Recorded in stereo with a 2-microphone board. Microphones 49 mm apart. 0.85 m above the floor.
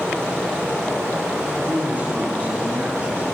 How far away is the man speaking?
About 9.5 m.